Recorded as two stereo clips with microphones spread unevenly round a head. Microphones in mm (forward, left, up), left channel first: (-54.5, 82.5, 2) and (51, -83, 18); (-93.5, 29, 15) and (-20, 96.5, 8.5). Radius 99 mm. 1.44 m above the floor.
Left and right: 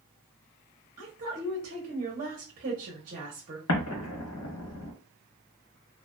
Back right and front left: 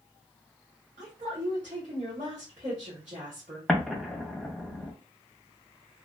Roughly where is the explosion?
Behind left.